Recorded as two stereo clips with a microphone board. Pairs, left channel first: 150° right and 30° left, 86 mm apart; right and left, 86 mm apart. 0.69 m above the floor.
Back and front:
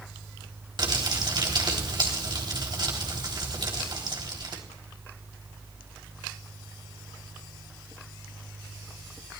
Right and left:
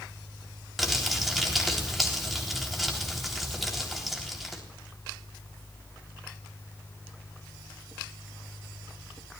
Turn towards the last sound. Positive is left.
turn(degrees=0)